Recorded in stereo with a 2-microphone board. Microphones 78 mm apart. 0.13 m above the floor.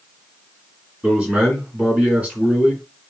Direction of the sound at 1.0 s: 20° right (ahead or behind).